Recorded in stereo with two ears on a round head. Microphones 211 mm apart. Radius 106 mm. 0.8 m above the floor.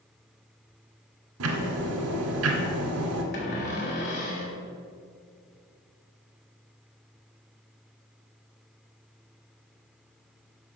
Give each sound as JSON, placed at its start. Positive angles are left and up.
{"t": 1.4, "sound": "ticking", "side_deg": -70, "distance_m": 1.9}
{"t": 3.3, "sound": "a cupboard door", "side_deg": 45, "distance_m": 3.5}